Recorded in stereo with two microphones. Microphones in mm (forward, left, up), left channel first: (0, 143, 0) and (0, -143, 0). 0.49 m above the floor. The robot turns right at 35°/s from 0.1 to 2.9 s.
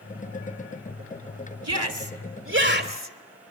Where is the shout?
80° right, 1.8 m; by 3.1 s 35° right, 1.8 m.